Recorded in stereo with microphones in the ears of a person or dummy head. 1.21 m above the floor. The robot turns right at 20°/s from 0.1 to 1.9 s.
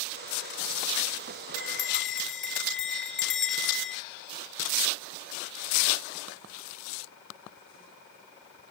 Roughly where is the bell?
Centre.